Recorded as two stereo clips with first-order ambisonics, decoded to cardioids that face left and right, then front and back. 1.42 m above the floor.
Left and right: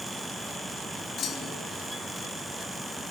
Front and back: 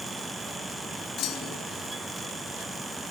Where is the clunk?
40° left, 5 m.